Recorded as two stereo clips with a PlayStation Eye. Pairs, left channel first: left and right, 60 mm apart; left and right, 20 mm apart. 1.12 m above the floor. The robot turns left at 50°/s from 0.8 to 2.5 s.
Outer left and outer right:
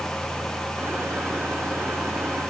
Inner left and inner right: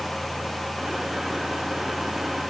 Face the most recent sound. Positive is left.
No sound to turn to.